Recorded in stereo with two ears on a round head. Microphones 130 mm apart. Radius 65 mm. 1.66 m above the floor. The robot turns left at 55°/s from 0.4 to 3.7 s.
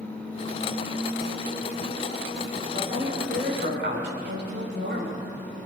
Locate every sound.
2.7 s a woman speaking: 25° right, 7 m; by 5.3 s 80° right, 7 m